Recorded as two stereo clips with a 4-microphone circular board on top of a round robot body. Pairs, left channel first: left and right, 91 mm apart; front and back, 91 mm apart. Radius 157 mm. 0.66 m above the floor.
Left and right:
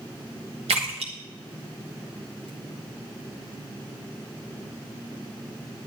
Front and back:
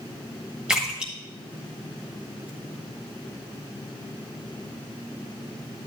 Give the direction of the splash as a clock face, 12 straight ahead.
3 o'clock.